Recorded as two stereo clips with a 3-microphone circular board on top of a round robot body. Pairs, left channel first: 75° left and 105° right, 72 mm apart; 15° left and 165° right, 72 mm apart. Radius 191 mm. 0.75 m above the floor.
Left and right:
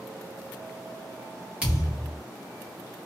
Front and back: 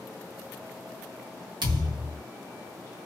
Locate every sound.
1.6 s a thud: straight behind, 1.5 m